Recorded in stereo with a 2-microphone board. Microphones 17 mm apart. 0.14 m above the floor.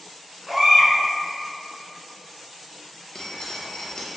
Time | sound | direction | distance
0.5 | a baby crying | 10° right (ahead or behind) | 1.1 m
3.1 | dripping | 40° left (ahead or behind) | 0.8 m